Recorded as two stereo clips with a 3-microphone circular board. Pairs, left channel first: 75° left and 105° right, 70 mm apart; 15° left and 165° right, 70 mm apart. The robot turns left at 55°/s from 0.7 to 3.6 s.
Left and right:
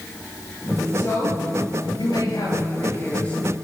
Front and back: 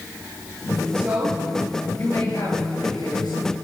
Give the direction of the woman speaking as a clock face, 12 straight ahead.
8 o'clock.